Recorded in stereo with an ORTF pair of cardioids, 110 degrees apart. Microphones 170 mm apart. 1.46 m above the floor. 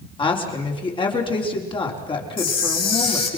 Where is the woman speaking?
30° left, 4 m.